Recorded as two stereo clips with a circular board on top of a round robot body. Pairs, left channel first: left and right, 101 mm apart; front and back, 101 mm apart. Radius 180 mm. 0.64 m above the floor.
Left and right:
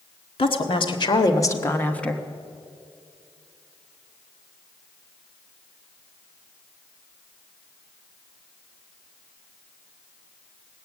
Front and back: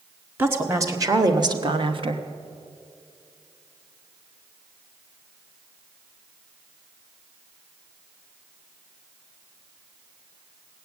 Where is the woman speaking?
115° left, 1.8 m; by 2.2 s 175° left, 1.2 m.